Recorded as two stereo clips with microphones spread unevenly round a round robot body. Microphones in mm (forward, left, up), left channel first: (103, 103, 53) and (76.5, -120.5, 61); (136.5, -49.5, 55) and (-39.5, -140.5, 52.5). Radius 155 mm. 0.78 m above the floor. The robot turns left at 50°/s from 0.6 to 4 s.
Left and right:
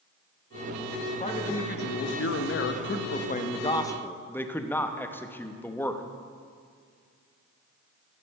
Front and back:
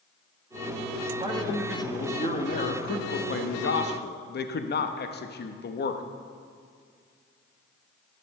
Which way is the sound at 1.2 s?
145° left.